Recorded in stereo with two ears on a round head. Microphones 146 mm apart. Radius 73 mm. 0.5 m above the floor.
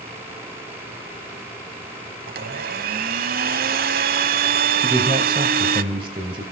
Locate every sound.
2.3 s a blender: 60° right (ahead or behind), 0.9 m
4.8 s a man speaking: 30° right (ahead or behind), 2 m